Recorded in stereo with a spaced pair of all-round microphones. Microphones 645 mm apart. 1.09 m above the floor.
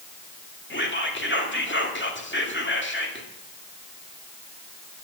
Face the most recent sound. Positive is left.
turn(degrees=15)  # may be behind; listen again after turning